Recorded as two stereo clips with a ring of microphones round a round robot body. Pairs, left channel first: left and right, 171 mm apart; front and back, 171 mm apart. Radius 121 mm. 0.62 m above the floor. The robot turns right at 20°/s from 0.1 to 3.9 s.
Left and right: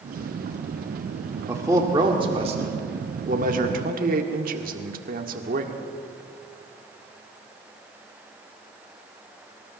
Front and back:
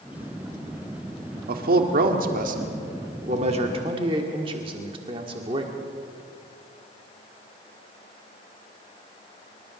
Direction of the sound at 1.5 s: 165° right.